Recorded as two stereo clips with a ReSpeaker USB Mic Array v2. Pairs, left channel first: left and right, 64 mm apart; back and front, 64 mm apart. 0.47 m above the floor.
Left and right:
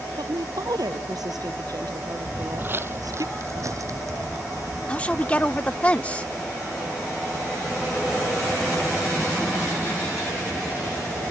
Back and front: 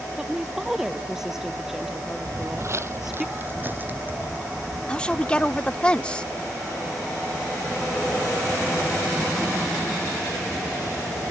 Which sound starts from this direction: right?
A woman speaking, at 0.2 s.